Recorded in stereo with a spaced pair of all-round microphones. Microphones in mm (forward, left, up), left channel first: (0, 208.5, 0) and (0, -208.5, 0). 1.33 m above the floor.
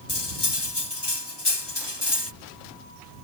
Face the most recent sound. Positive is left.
turn(degrees=75)  # may be behind; listen again after turning